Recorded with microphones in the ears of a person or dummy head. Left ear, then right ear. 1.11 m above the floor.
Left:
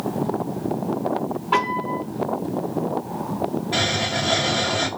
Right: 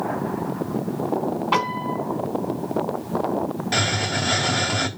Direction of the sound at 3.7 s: 60° right (ahead or behind).